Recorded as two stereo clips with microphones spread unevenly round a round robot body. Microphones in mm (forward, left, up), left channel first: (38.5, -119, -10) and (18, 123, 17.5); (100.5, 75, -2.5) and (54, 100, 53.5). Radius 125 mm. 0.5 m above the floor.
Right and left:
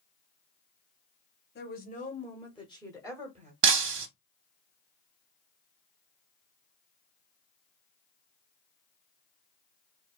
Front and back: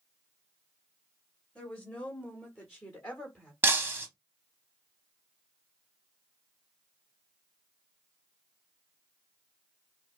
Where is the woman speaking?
50° right, 1.1 m; by 3.5 s 35° left, 1.5 m.